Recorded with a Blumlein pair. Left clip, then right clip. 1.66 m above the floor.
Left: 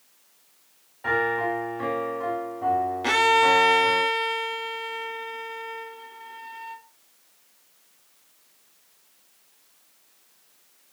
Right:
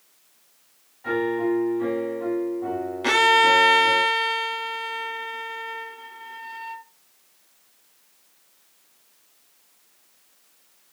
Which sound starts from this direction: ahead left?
A piano, at 1.0 s.